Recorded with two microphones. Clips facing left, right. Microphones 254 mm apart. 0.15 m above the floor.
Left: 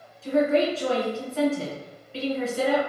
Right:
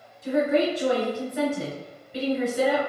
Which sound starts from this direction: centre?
A woman speaking, at 0.2 s.